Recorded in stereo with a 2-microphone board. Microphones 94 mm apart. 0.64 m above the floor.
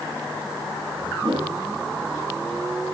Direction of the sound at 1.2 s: 60° right (ahead or behind).